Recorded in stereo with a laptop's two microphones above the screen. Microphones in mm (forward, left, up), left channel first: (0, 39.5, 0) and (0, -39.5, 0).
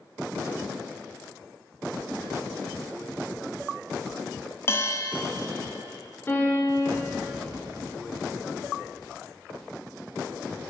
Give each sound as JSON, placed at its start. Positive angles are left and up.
{"t": 4.7, "sound": "a bell", "side_deg": 30, "distance_m": 0.5}
{"t": 6.3, "sound": "a piano", "side_deg": 30, "distance_m": 1.3}